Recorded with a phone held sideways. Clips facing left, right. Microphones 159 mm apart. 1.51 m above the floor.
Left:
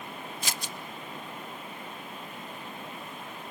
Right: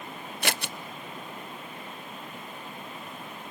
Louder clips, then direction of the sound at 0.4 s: Right 9 dB; 70° right (ahead or behind).